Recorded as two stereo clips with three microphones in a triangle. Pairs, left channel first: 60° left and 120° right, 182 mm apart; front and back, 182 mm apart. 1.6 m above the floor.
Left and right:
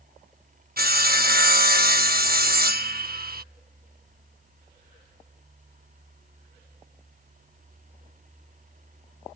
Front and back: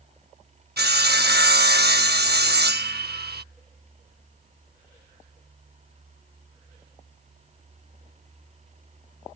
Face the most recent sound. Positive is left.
turn(degrees=-155)